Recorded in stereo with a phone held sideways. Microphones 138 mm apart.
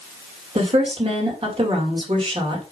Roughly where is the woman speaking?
Right.